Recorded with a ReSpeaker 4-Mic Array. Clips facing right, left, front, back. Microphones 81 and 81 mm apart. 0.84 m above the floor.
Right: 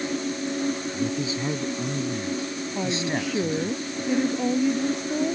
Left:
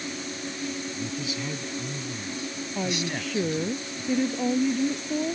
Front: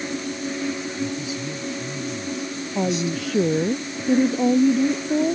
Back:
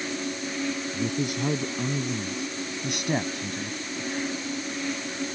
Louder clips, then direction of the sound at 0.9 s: Right 6 dB, front 1 dB; 150° right.